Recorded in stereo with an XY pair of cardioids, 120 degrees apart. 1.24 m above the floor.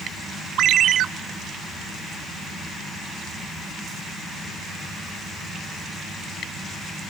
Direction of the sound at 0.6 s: 65° right.